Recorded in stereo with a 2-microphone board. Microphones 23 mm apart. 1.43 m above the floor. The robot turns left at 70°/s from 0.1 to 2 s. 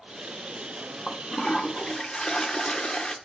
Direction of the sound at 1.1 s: 160° left.